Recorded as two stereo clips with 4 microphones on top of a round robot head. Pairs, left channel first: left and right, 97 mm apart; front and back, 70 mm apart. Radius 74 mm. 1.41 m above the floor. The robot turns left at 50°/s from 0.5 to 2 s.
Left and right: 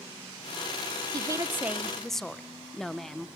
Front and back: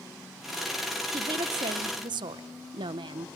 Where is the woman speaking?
140° right, 0.9 m; by 3.3 s 175° left, 0.9 m.